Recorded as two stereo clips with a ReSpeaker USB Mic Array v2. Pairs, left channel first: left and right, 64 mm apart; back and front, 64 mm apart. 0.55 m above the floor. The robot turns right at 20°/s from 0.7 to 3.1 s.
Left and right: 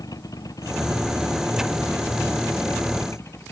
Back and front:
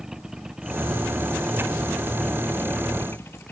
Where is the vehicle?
80° left; by 3.5 s 130° left.